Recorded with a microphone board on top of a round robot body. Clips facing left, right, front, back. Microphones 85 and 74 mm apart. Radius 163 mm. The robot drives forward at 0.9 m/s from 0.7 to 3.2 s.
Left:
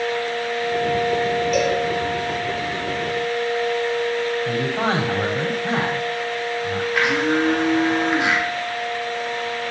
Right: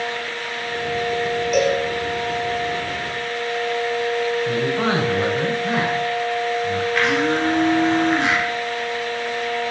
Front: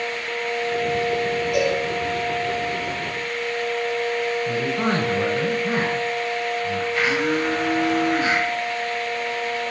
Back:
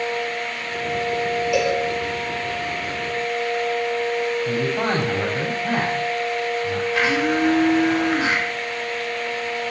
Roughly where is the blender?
Behind.